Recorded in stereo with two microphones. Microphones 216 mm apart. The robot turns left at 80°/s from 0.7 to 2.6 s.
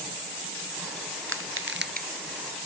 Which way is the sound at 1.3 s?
75° right (ahead or behind).